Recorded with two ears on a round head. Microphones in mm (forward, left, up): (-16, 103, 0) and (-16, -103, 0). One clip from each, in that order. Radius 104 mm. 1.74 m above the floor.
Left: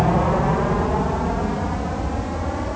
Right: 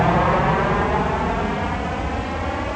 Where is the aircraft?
60° right (ahead or behind); by 2.8 s 75° right (ahead or behind).